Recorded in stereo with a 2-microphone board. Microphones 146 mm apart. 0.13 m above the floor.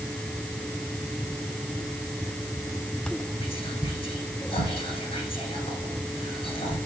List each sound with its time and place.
3.4 s whispering: 40° left (ahead or behind), 1.7 m